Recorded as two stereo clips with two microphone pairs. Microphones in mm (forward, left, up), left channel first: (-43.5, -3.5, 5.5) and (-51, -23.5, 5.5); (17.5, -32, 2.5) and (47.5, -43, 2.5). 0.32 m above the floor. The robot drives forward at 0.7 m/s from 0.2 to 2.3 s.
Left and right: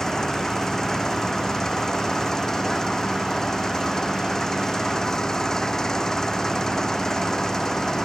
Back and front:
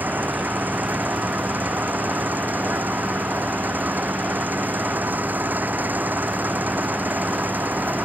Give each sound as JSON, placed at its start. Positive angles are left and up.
{"t": 0.0, "sound": "an engine running", "azimuth_deg": 0}